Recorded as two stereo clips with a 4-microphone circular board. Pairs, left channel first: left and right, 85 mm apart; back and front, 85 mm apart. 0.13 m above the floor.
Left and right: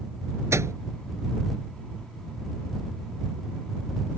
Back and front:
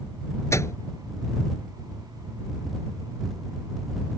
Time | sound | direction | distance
0.5 | a microwave | 135° right | ?